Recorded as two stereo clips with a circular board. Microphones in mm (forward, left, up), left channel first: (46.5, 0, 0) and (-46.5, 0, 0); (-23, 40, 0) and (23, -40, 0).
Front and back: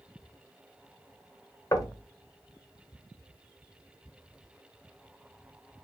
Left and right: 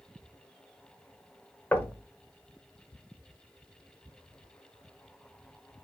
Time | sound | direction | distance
1.7 | knocking | 55° left | 0.9 m